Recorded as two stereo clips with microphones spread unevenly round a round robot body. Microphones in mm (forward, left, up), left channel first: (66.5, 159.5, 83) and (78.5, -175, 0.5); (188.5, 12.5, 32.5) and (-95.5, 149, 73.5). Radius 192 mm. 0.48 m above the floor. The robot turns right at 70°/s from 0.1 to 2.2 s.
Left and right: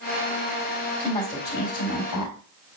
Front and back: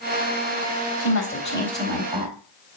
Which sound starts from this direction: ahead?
A woman speaking, at 1.0 s.